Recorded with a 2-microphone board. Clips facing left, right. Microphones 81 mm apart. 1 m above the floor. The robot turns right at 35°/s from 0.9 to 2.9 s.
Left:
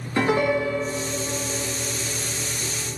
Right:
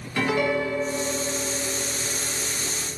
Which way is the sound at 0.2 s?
30° left.